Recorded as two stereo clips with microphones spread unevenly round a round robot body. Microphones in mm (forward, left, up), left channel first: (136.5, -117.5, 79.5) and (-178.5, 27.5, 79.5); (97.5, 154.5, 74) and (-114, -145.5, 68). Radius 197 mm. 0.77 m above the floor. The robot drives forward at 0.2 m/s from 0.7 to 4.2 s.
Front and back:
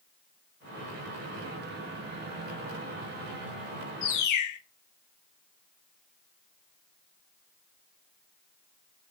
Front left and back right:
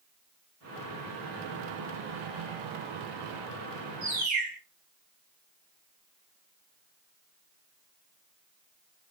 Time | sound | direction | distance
4.0 | a bird | 55° right | 0.6 m